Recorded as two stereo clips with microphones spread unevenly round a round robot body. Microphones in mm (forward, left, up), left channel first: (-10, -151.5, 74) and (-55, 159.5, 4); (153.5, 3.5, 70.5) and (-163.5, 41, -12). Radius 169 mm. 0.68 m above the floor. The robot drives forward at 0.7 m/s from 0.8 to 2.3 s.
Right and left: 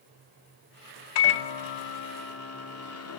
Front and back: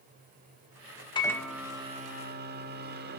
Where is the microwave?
85° right, 1.0 m; by 3.2 s 130° right, 1.2 m.